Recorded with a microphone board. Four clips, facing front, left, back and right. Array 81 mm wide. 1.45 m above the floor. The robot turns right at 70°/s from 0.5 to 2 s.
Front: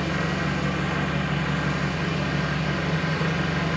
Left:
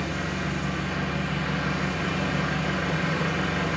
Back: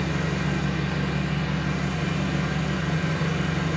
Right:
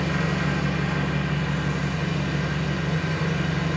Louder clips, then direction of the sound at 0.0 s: Right 4 dB, front 1 dB; 45° right.